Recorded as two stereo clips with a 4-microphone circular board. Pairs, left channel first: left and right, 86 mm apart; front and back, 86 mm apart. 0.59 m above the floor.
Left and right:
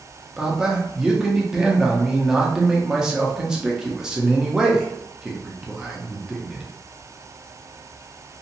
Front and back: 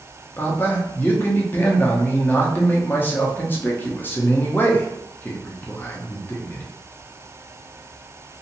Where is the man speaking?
20° right, 0.6 m.